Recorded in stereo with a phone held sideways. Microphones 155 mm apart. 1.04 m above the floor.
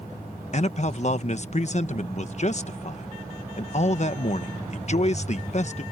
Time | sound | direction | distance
0.5 | a man speaking | 50° left (ahead or behind) | ?